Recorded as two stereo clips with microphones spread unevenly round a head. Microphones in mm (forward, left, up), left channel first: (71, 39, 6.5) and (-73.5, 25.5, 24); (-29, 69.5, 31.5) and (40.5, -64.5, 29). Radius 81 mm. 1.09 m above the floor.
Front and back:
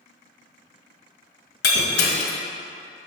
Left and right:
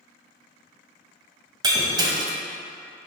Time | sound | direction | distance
1.6 | breaking glass | 5° right | 1.5 m